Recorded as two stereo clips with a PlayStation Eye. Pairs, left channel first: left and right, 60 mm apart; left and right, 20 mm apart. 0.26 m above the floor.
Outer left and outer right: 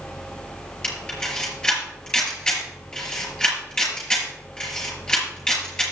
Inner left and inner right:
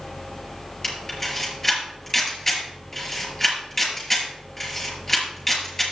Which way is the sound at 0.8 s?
15° left (ahead or behind).